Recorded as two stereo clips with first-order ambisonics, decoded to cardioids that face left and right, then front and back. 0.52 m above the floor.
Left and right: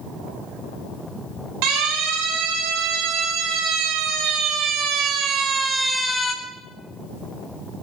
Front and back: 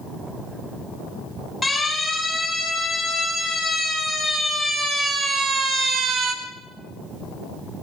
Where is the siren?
85° right, 5.5 m; by 6.3 s 150° left, 1.3 m.